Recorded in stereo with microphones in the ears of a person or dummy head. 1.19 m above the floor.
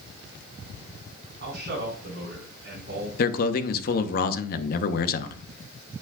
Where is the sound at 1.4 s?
55° right (ahead or behind), 4.5 m.